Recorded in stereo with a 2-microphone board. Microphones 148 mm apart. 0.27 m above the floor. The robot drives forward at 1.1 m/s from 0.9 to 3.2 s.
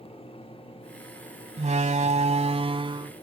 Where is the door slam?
55° right (ahead or behind); by 3.1 s 35° right (ahead or behind).